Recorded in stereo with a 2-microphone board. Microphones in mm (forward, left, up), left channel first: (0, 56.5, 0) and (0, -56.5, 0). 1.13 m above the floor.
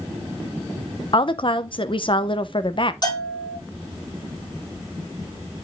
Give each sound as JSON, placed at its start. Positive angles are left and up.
{"t": 1.1, "sound": "a woman speaking", "side_deg": 50, "distance_m": 0.9}
{"t": 3.0, "sound": "a bell", "side_deg": 35, "distance_m": 6.5}